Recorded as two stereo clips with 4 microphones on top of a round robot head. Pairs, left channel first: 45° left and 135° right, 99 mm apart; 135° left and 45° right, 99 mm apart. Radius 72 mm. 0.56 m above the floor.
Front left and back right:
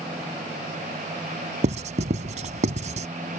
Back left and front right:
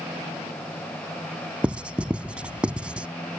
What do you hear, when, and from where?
1.6 s writing: 125° right